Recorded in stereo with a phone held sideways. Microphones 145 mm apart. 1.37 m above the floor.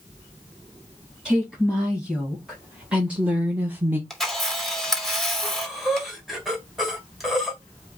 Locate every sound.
1.2 s a woman speaking: 5° right (ahead or behind), 2 m; by 4.0 s 15° right (ahead or behind), 0.8 m
4.1 s a camera shutter: centre (ahead or behind), 1.7 m
5.4 s breathing: centre (ahead or behind), 1.8 m